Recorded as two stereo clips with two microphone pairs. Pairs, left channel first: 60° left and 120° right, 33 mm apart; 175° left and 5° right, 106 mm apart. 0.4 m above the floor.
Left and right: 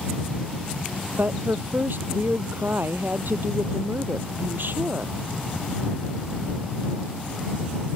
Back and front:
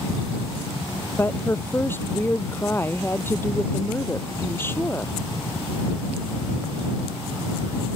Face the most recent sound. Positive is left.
turn(degrees=-115)